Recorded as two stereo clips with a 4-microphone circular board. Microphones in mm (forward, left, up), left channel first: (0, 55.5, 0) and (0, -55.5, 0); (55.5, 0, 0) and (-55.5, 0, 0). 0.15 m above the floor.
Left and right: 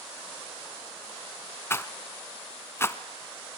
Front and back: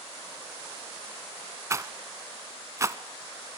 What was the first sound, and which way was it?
A rattle, 140° left.